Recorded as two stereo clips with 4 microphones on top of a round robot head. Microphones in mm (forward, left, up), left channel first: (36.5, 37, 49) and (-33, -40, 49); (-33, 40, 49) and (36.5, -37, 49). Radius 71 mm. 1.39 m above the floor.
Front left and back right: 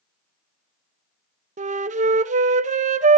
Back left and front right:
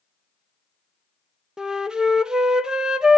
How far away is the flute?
About 0.9 m.